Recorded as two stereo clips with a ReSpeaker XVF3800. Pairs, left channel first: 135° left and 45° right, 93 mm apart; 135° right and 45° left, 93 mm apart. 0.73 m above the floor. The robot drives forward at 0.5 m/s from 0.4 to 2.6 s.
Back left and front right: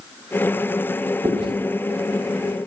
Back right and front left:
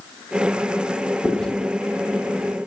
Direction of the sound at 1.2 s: 50° right.